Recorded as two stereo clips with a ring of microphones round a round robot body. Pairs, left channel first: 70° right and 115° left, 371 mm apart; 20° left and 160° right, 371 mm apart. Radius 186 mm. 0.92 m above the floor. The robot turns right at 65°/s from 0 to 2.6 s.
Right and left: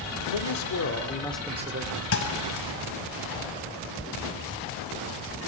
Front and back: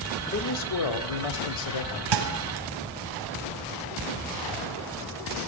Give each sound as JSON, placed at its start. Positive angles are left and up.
{"t": 0.3, "sound": "a man speaking", "azimuth_deg": -50, "distance_m": 2.5}
{"t": 2.1, "sound": "a thud", "azimuth_deg": -125, "distance_m": 3.0}